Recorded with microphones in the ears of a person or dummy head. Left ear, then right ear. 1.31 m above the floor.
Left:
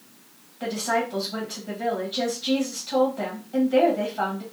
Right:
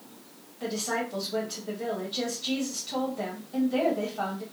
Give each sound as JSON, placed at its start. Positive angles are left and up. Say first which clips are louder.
{"t": 0.6, "sound": "a woman speaking", "louder": "left 5 dB", "side_deg": 5, "distance_m": 1.5}